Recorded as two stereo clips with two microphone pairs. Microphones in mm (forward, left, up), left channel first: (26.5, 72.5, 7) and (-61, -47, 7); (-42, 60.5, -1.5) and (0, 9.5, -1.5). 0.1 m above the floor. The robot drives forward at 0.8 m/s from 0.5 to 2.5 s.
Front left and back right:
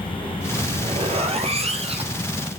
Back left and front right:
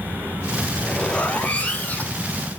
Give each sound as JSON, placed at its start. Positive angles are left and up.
{"t": 0.6, "sound": "a zipper", "azimuth_deg": -150, "distance_m": 0.8}